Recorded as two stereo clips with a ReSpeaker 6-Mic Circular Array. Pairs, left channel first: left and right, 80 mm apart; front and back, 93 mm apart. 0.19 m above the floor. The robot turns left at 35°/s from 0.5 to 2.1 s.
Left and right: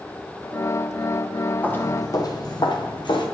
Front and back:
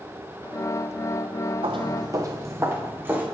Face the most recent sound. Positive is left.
turn(degrees=110)